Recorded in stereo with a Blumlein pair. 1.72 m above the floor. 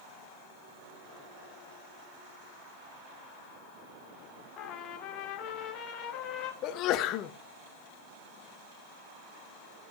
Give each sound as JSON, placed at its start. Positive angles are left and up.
{"t": 4.6, "sound": "a trumpet", "azimuth_deg": 35, "distance_m": 1.2}
{"t": 6.6, "sound": "a sneeze", "azimuth_deg": 35, "distance_m": 0.7}